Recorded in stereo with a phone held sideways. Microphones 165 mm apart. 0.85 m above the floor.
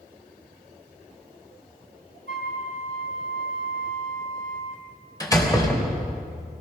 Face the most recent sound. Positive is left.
turn(degrees=20)  # may be behind; listen again after turning